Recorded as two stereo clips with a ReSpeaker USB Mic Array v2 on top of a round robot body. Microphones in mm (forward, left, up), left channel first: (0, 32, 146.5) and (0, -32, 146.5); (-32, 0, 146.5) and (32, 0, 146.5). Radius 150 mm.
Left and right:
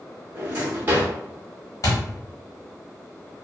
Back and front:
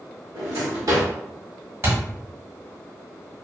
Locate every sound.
0.3 s a drawer: 30° right, 0.8 m
1.8 s a thud: 50° left, 1.2 m